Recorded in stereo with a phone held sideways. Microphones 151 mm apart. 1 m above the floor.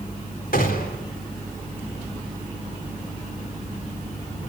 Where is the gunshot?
70° left (ahead or behind), 3.5 m.